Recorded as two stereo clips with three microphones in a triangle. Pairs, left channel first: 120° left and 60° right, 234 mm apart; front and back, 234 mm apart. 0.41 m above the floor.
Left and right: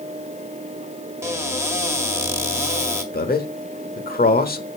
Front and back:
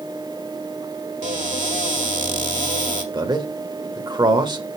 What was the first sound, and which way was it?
A cupboard door, 135° right.